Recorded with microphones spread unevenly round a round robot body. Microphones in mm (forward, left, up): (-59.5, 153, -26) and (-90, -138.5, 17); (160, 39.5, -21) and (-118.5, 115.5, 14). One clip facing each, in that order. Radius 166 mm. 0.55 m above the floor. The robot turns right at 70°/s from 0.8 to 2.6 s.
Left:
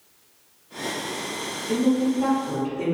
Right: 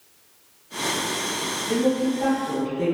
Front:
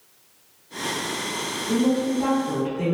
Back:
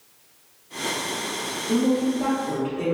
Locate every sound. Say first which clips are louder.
1.7 s a woman speaking: left 1 dB, even; 15° left, 1.3 m; by 3.0 s 80° left, 1.3 m